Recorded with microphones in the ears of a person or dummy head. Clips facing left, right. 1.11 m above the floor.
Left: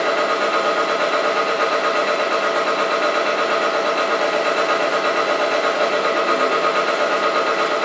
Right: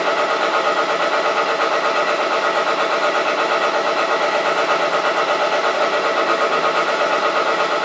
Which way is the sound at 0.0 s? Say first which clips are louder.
Even; 20° left (ahead or behind).